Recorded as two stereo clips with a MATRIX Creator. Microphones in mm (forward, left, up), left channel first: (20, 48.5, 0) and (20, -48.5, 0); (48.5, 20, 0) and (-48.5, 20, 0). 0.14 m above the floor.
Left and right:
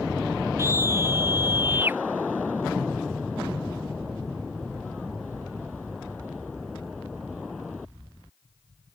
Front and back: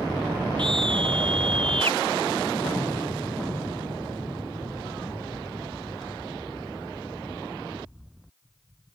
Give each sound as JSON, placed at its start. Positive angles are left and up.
{"t": 0.6, "sound": "a scream", "azimuth_deg": -150}